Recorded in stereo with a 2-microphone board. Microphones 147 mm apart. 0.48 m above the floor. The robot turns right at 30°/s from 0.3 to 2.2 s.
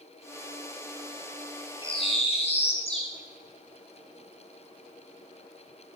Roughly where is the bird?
Left.